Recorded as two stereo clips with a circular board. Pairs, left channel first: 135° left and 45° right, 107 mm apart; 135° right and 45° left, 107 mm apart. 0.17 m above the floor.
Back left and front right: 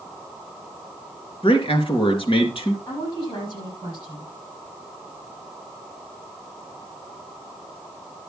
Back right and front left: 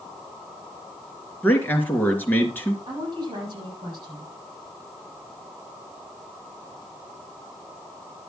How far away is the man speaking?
About 3 m.